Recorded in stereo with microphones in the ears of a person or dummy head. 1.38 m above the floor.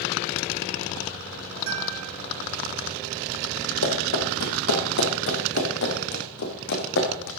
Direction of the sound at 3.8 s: 80° left.